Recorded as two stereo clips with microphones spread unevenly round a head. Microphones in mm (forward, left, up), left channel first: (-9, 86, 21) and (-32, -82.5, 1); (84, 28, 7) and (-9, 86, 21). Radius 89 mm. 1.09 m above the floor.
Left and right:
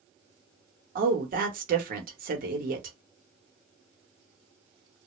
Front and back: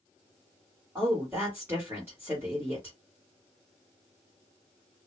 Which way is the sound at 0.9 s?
135° right.